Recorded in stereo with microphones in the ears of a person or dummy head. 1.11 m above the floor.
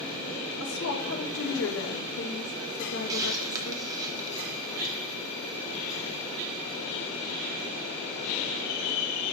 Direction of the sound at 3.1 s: 20° right (ahead or behind).